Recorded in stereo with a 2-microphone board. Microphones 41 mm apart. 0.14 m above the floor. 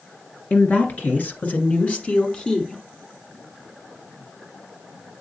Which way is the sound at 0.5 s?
45° left (ahead or behind).